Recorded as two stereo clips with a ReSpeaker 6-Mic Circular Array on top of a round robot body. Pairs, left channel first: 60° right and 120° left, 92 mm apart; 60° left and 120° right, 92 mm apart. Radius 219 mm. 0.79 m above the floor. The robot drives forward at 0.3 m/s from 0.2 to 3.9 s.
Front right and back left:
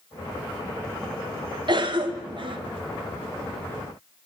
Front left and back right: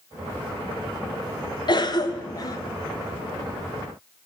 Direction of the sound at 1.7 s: 90° left.